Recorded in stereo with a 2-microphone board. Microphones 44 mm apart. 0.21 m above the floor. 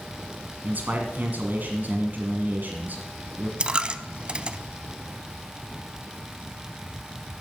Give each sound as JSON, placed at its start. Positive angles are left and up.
{"t": 0.6, "sound": "a man speaking", "side_deg": -50, "distance_m": 1.7}
{"t": 3.6, "sound": "a dropped coin", "side_deg": -30, "distance_m": 0.5}